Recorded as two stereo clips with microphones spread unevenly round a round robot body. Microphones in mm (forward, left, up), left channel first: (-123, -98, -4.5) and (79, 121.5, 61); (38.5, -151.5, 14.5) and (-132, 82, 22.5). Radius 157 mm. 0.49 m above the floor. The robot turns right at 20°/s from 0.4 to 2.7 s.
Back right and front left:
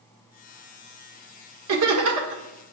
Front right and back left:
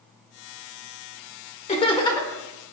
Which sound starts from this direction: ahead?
Laughter, at 1.7 s.